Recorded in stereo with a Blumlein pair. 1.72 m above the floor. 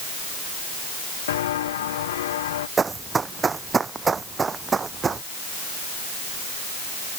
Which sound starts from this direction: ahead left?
Footsteps, at 1.3 s.